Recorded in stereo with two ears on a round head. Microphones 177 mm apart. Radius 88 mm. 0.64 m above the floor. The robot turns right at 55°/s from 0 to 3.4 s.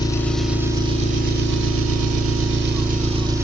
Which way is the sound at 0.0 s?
155° left.